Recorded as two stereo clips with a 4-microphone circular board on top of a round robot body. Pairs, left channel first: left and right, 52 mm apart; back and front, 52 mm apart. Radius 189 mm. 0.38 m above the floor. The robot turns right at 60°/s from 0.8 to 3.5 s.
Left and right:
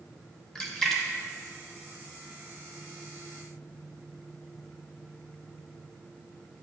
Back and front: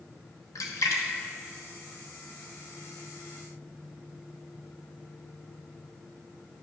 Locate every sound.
0.6 s a splash: 175° left, 1.0 m; by 2.7 s 75° right, 1.0 m